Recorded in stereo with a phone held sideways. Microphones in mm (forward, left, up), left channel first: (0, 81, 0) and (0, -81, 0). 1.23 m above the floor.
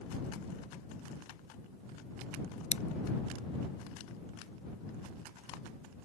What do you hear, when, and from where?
2.7 s scissors: 40° left (ahead or behind)